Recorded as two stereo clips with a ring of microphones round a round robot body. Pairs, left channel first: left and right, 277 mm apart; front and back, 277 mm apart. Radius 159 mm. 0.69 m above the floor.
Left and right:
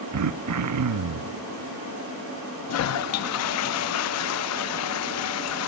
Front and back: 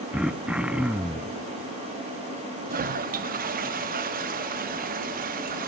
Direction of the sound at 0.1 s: 95° right.